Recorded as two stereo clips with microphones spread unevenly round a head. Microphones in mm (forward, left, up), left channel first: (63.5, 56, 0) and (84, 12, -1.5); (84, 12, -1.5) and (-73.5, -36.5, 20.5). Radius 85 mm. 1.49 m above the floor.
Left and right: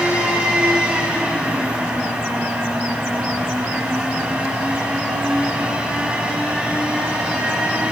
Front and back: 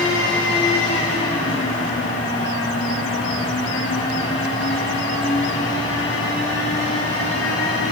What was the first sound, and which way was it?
A fan, 5° left.